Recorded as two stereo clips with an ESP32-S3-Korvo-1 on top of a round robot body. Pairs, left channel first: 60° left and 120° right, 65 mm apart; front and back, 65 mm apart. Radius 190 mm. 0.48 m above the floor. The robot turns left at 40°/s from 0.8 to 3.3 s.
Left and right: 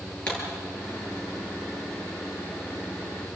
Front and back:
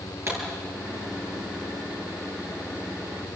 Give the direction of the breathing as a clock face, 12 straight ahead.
I don't hear breathing.